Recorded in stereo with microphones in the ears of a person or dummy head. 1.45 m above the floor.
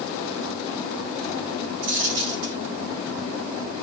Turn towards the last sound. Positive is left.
turn(degrees=-50)  # may be behind; listen again after turning